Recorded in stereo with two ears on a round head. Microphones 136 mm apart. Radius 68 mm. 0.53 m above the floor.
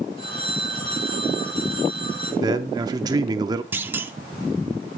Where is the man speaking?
25° right (ahead or behind), 0.7 m.